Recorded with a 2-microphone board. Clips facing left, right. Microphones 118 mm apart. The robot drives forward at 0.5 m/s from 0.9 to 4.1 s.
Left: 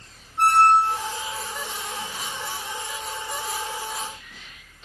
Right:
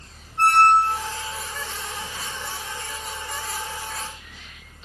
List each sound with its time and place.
0.4 s a squeak: 10° left (ahead or behind), 1.8 m